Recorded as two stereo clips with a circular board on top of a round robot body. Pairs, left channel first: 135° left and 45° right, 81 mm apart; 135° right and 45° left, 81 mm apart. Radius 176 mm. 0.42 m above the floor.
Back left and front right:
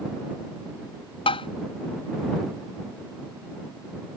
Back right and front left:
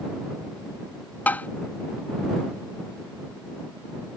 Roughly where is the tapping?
Behind left.